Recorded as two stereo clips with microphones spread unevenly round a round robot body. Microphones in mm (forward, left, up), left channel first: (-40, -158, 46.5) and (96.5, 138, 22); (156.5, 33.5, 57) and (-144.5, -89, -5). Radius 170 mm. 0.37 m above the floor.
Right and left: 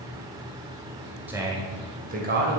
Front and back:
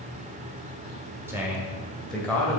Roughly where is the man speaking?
Behind left.